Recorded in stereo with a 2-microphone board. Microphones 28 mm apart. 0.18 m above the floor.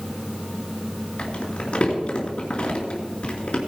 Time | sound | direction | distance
1.2 | crumpling | 45° left (ahead or behind) | 3 m